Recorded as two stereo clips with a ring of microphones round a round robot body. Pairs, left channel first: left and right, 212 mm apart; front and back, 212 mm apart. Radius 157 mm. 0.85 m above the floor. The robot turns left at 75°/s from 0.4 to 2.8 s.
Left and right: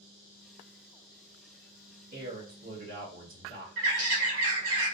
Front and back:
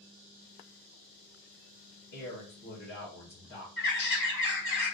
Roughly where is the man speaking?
Ahead right.